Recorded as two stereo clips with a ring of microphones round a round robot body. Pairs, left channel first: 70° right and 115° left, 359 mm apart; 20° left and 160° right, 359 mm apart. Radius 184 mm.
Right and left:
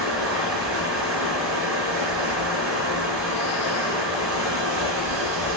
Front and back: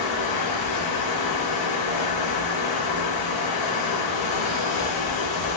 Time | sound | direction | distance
0.0 | running water | 55° left | 3.5 m